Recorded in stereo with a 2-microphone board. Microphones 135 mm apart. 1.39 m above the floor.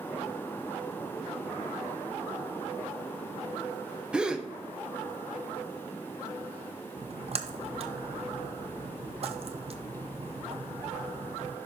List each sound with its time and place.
4.1 s a gasp: 5° right (ahead or behind), 0.6 m
7.0 s a splash: 50° right (ahead or behind), 0.6 m